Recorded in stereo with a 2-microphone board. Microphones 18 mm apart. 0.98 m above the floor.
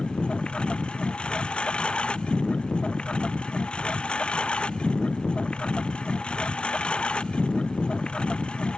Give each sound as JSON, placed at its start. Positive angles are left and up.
{"t": 0.0, "sound": "a lawn mower", "side_deg": 75}